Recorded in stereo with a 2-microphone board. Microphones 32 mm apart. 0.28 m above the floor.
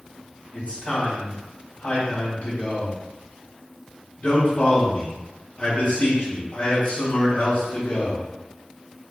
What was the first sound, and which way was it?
A man speaking, 50° left (ahead or behind).